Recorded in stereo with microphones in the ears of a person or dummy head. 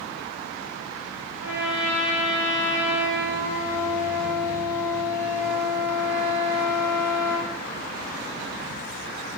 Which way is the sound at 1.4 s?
10° right (ahead or behind).